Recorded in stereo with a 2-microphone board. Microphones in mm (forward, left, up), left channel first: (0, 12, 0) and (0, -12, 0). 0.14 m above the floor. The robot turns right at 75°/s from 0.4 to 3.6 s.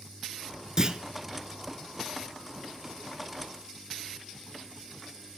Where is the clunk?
25° right (ahead or behind), 0.5 m; by 1.0 s 40° right (ahead or behind), 0.5 m.